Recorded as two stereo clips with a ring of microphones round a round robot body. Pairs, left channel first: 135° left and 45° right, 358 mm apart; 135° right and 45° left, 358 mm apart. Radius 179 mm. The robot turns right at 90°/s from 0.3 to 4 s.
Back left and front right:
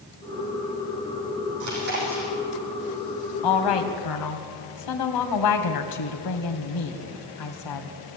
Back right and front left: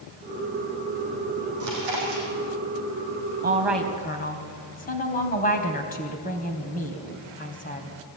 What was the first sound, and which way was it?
Chewing, 5° right.